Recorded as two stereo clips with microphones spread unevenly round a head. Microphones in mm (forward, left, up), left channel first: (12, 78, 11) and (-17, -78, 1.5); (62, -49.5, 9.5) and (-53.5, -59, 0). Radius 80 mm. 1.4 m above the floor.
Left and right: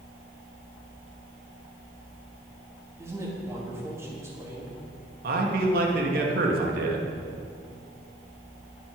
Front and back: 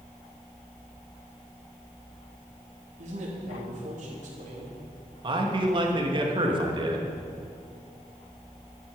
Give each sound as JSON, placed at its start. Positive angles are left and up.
{"t": 3.0, "sound": "a man speaking", "azimuth_deg": -175, "distance_m": 3.0}
{"t": 5.2, "sound": "a man speaking", "azimuth_deg": -130, "distance_m": 2.0}